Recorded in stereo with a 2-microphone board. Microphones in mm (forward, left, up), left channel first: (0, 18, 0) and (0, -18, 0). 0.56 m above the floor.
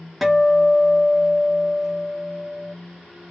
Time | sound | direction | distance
0.2 | a guitar | 5° right (ahead or behind) | 0.7 m